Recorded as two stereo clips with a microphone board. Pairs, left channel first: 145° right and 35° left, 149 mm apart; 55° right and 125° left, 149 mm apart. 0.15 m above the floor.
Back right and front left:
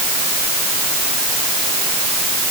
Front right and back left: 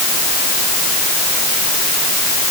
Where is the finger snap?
No finger snap in this recording.